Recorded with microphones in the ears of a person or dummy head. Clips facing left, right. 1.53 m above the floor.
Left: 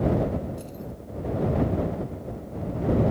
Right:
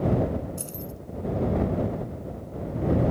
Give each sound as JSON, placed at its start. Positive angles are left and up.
{"t": 0.6, "sound": "keys jangling", "side_deg": -55}